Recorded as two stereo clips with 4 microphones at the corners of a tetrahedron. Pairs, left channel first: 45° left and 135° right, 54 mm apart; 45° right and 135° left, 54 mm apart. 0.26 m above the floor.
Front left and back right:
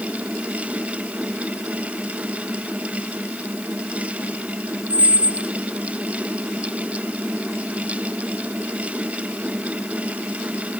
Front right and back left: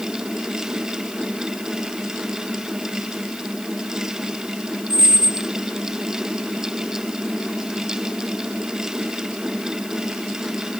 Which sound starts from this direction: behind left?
A squeak, at 4.9 s.